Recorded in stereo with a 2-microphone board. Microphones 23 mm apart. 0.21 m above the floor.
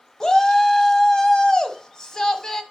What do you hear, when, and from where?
0.2 s a shout: 30° left (ahead or behind), 1.2 m